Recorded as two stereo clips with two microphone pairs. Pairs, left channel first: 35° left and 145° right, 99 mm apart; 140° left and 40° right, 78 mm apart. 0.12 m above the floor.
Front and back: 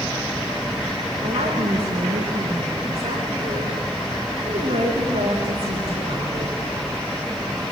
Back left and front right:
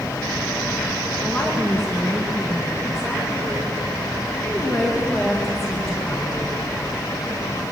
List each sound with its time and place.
1.2 s a woman speaking: 130° right, 9 m